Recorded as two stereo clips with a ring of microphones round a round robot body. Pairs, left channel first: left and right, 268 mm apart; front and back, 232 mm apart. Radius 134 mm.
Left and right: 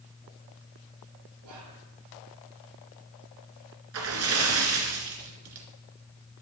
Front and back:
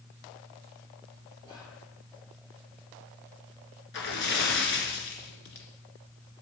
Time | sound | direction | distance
1.4 | whispering | 75° right | 3 m
3.9 | a splash | 50° right | 2.0 m